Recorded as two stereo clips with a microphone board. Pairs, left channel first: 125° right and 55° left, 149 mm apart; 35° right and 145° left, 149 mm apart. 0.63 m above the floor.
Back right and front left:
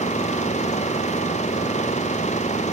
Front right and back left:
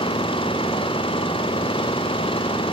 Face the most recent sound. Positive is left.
turn(degrees=-85)